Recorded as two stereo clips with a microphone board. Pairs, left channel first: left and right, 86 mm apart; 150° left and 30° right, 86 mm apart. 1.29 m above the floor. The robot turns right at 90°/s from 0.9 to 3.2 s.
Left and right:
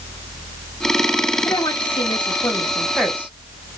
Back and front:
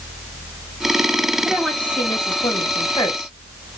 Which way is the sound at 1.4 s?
40° left.